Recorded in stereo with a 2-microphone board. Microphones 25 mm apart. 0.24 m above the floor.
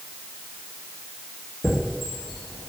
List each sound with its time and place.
1.6 s a chime: centre (ahead or behind), 1.4 m